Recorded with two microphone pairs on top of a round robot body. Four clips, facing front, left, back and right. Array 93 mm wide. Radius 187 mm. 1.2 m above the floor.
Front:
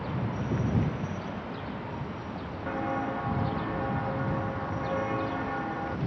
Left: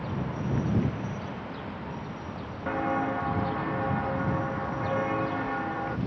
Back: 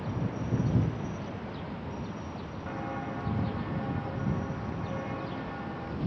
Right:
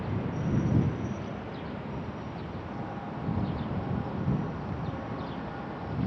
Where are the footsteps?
70° left; by 6.0 s 60° left.